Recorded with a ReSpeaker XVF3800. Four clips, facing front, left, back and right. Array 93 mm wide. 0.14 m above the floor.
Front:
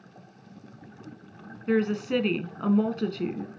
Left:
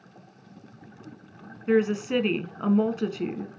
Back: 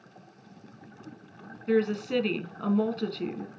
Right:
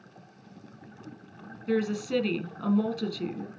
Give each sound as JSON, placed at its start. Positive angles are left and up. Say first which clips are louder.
{"t": 1.7, "sound": "a woman speaking", "louder": "left 5 dB, front 1 dB", "azimuth_deg": 65, "distance_m": 1.1}